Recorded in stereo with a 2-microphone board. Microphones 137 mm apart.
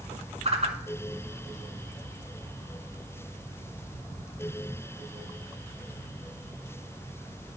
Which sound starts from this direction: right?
A whoosh, at 0.5 s.